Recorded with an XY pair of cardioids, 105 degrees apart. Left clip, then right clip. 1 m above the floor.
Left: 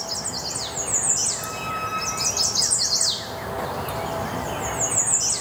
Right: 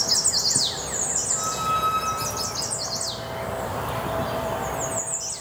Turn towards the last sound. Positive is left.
turn(degrees=-55)